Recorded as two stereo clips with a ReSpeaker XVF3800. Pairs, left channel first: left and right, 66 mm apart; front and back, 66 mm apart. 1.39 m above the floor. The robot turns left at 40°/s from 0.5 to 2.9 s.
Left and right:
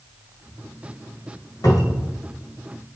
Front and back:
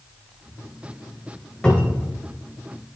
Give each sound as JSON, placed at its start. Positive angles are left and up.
{"t": 1.6, "sound": "a cupboard door", "azimuth_deg": 75, "distance_m": 2.0}